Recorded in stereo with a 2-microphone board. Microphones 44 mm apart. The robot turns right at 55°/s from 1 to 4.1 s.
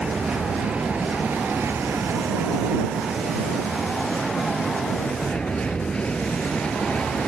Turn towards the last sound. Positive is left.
turn(degrees=25)